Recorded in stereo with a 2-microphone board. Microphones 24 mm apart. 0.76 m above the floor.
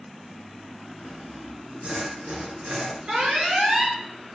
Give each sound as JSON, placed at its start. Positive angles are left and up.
{"t": 1.0, "sound": "sawing", "side_deg": -65, "distance_m": 4.5}
{"t": 3.1, "sound": "an alarm", "side_deg": -70, "distance_m": 4.5}